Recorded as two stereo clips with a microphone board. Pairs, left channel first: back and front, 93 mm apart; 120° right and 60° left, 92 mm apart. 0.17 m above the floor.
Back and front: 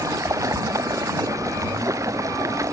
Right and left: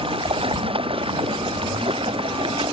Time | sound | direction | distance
0.0 | running water | 55° left | ?